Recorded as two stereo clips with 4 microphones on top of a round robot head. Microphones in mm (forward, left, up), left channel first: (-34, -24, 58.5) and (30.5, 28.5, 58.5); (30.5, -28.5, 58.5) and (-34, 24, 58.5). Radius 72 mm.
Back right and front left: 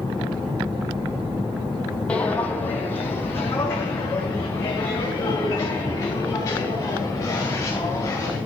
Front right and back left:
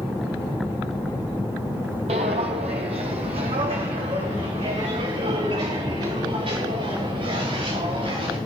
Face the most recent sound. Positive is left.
turn(degrees=160)